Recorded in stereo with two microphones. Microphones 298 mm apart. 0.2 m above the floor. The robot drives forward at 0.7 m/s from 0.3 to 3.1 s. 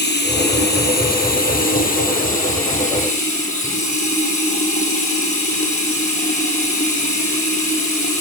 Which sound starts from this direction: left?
Running water, at 0.0 s.